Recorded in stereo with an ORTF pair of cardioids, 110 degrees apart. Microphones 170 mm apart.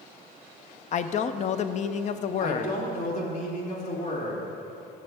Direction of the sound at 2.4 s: 45° left.